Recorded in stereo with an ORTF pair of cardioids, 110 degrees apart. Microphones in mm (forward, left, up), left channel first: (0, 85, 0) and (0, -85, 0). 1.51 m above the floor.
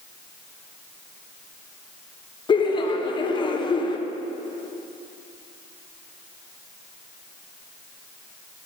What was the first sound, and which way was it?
Laughter, 30° left.